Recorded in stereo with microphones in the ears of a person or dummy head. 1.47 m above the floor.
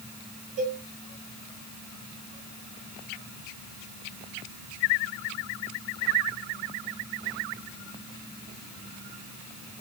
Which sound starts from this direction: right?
A cowbell, at 0.6 s.